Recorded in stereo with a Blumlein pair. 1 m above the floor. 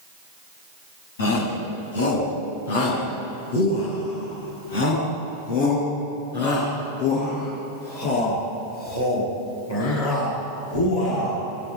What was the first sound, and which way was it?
A shout, 65° left.